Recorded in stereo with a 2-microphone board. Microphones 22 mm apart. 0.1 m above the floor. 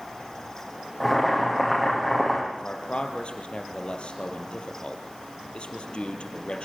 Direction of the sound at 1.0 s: 10° left (ahead or behind).